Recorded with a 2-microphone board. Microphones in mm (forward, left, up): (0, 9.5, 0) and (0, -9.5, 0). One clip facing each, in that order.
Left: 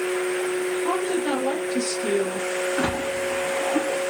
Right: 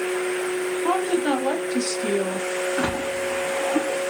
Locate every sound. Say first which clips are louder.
0.8 s a woman speaking: right 5 dB; 35° right (ahead or behind), 1.2 m
2.8 s a splash: even; 10° right (ahead or behind), 1.5 m